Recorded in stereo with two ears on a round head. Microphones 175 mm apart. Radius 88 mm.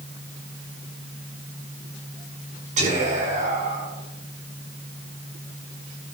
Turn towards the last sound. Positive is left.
turn(degrees=-45)  # may be behind; listen again after turning